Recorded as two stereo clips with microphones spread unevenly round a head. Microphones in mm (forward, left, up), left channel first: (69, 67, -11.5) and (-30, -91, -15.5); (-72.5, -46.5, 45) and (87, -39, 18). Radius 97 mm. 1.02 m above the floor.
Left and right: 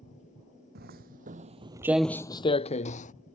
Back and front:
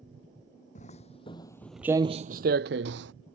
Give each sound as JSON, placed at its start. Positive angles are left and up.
{"t": 0.8, "sound": "footsteps", "azimuth_deg": -155}